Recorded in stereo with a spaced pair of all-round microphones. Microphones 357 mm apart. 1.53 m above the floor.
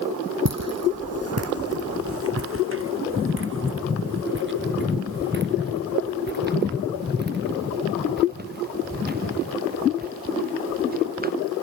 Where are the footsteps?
45° right (ahead or behind); by 11.3 s 25° right (ahead or behind).